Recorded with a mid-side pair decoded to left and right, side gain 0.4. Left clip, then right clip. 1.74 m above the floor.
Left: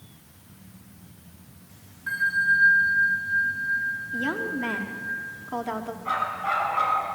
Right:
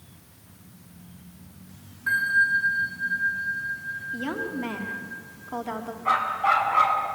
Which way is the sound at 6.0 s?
60° right.